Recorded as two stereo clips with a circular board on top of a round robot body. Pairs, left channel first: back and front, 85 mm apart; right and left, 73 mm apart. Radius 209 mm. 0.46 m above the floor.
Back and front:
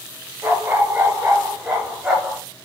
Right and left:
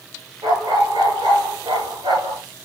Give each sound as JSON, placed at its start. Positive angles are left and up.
{"t": 0.4, "sound": "a dog barking", "azimuth_deg": 70, "distance_m": 6.0}